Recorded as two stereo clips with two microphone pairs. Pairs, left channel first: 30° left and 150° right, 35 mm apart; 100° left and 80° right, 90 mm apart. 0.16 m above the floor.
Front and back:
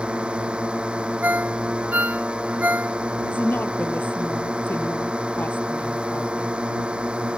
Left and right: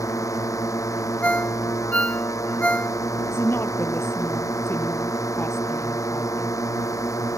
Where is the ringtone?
175° left.